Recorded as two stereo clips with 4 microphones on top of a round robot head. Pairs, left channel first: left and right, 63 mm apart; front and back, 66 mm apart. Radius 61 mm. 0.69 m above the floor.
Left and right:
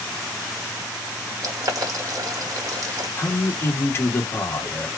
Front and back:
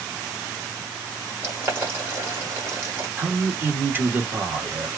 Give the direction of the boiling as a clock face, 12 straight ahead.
4 o'clock.